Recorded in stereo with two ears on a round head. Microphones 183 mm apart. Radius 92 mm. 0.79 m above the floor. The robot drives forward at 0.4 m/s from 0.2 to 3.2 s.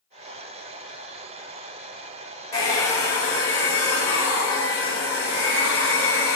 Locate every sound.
2.5 s a hair dryer: 15° left (ahead or behind), 1.0 m